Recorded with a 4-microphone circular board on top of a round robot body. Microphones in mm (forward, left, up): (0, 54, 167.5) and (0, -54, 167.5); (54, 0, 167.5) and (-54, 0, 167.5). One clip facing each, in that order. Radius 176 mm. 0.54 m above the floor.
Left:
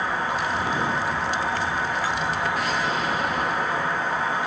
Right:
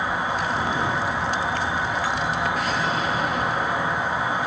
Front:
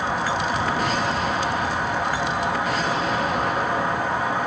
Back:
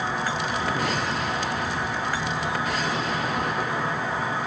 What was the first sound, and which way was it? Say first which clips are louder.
An insect: right 1 dB, front 3 dB; 15° right.